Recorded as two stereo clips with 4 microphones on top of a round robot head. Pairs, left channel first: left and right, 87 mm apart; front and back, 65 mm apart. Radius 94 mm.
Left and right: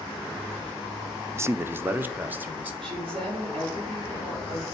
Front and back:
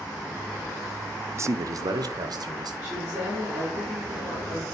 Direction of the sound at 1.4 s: 145° right.